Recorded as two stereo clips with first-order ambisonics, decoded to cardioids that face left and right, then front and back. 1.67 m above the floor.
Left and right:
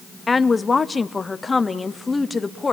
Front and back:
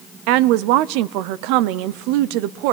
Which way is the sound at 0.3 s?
170° left.